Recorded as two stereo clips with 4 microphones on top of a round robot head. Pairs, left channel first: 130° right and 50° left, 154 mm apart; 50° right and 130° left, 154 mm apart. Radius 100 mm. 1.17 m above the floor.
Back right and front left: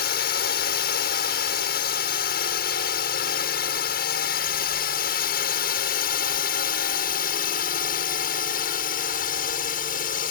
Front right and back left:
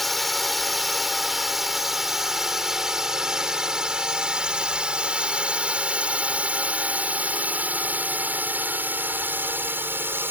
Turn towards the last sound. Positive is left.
turn(degrees=-155)